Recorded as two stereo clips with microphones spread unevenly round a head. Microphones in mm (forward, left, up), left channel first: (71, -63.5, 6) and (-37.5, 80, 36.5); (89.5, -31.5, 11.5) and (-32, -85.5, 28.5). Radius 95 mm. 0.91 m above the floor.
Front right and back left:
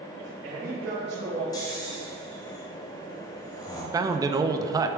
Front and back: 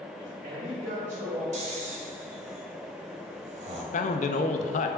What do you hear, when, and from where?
0.2 s a man speaking: 175° left, 2.5 m; by 1.4 s 150° left, 1.6 m
1.5 s snoring: 125° right, 1.6 m
3.9 s a man speaking: 55° left, 0.6 m